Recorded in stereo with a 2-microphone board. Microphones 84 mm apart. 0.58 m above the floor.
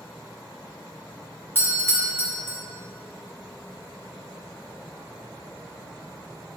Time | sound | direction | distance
1.6 | a doorbell | 25° left (ahead or behind) | 1.3 m